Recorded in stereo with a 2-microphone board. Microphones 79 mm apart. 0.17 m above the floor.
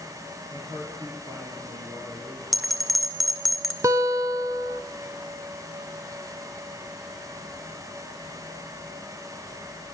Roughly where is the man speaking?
Right.